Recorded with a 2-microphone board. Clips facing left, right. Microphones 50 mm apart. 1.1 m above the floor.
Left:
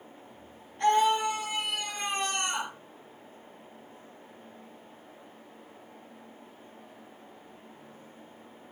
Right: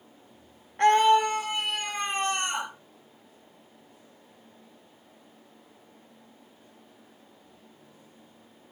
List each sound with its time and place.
0.8 s a scream: 60° right (ahead or behind), 3 m; by 2.7 s 30° right (ahead or behind), 4.5 m